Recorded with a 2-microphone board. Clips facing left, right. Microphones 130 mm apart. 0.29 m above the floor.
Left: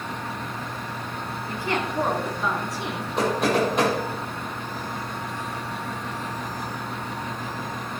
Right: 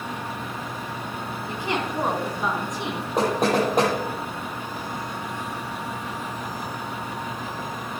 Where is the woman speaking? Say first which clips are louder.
Even; 20° right (ahead or behind), 2.5 m.